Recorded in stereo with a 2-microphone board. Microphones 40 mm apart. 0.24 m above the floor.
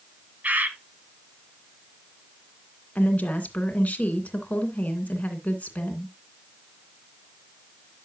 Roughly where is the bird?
Right.